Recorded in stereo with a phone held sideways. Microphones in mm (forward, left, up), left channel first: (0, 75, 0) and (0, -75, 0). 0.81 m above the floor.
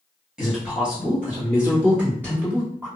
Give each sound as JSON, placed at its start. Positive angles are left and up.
{"t": 0.4, "sound": "a man speaking", "side_deg": -5, "distance_m": 1.0}